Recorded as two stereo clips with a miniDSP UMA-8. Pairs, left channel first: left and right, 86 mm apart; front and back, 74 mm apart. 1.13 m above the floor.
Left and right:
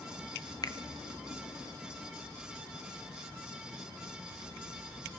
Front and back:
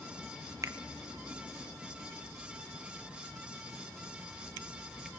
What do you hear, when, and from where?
0.6 s a finger snap: 135° left, 0.7 m